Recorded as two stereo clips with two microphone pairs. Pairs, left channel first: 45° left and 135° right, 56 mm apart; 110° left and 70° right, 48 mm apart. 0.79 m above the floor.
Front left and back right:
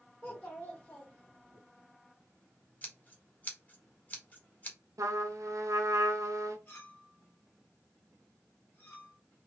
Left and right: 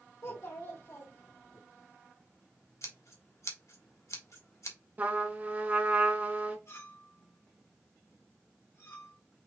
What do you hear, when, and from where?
0.2 s a child speaking: 100° left, 1.4 m; by 1.6 s 120° left, 2.5 m
2.8 s scissors: 105° left, 1.4 m
5.0 s a trumpet: 125° right, 1.0 m
6.7 s a clink: 95° left, 2 m